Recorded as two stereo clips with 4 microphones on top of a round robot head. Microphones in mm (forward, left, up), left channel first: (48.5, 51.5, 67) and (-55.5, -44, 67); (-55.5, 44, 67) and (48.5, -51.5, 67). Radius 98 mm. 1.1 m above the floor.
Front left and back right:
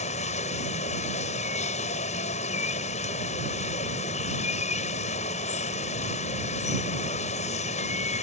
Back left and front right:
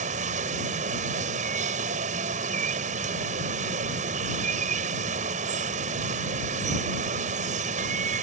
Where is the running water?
Straight ahead.